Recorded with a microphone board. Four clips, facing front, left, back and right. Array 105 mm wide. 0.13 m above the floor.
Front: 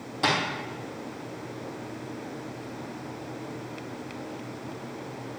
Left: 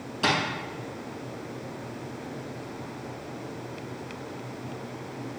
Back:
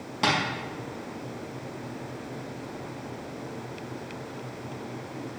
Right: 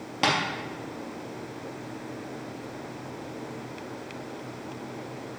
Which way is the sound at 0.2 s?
105° right.